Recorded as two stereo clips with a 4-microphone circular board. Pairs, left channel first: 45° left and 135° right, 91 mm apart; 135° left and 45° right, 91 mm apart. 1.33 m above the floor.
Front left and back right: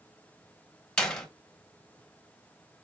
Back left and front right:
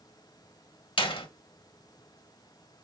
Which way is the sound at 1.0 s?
125° left.